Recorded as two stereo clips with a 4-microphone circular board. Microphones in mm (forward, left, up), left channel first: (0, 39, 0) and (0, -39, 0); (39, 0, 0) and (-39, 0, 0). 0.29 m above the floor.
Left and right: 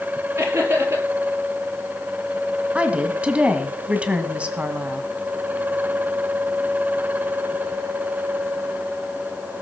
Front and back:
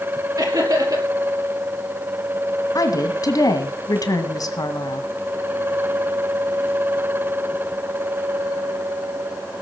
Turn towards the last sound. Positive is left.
turn(degrees=-20)